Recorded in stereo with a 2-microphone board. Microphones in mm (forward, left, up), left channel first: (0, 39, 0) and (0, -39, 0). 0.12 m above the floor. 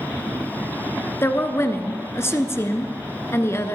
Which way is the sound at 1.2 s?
35° left (ahead or behind).